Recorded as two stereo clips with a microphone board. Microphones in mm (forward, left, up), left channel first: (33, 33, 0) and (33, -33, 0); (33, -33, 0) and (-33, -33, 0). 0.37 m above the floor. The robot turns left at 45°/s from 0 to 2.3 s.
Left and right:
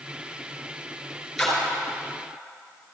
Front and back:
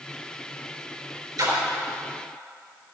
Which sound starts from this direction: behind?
A splash, at 1.4 s.